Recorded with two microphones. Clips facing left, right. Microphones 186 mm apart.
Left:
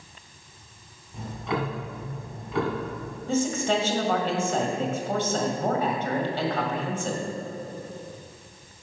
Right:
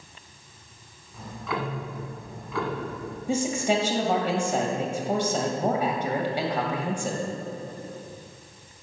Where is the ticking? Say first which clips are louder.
Left 2 dB; 25° left (ahead or behind), 1.7 m.